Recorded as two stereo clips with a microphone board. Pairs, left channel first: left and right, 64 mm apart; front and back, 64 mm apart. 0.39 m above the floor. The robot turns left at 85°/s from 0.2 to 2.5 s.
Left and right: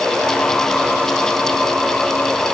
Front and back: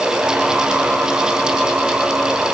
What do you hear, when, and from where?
Only background noise.